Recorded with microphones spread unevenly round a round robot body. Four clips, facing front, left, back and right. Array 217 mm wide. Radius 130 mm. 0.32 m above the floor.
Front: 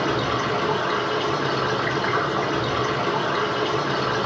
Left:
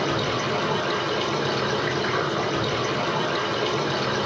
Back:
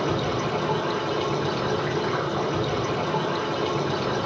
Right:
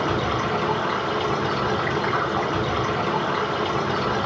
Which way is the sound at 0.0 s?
120° right.